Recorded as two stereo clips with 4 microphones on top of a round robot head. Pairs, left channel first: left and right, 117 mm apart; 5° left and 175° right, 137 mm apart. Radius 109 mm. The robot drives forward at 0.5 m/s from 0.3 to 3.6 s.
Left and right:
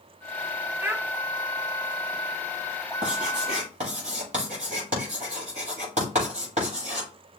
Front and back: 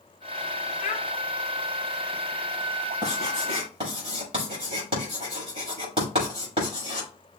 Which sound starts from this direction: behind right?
Writing, at 3.0 s.